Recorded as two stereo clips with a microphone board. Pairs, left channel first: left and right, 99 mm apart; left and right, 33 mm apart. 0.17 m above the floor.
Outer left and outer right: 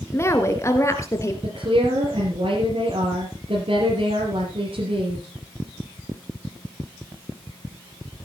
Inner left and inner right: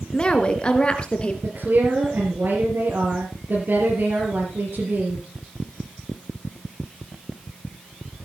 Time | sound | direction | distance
0.1 | a woman speaking | 25° left (ahead or behind) | 2 m
1.4 | a woman speaking | 65° right (ahead or behind) | 5 m